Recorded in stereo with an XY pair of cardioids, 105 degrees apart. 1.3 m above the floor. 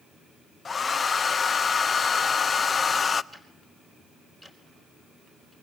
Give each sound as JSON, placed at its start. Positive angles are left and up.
{"t": 0.7, "sound": "a hair dryer", "azimuth_deg": 35, "distance_m": 0.7}
{"t": 3.3, "sound": "ticking", "azimuth_deg": -15, "distance_m": 4.0}